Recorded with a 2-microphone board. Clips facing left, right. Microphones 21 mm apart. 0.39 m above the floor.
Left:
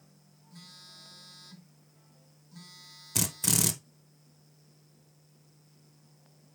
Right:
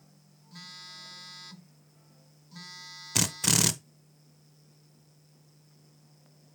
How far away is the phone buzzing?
About 1.0 m.